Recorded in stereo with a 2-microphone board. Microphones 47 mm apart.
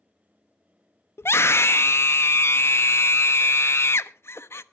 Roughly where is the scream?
Left.